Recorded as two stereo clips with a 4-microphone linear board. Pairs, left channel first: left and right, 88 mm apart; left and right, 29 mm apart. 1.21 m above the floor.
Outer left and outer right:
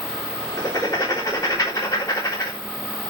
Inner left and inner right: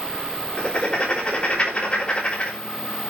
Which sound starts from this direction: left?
Writing, at 0.6 s.